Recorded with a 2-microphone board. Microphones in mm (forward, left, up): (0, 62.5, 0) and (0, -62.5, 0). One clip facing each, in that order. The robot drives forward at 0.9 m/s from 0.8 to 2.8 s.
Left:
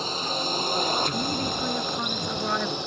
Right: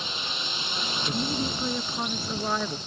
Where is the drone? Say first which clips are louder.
Left 7 dB; 40° left (ahead or behind); by 2.9 s 65° left (ahead or behind).